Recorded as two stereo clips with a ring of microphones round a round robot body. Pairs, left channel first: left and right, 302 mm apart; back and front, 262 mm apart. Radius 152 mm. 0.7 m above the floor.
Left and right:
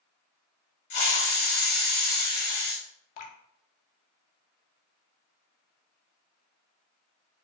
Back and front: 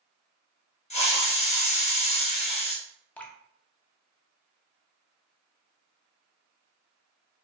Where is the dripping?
95° left, 0.5 m.